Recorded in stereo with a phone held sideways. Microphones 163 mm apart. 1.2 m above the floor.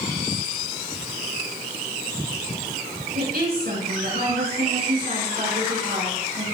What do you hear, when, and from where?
3.1 s a woman speaking: 80° right, 6 m